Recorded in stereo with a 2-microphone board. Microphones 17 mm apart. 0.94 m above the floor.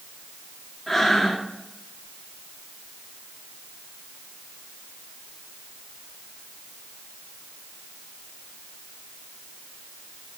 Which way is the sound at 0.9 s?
Centre (ahead or behind).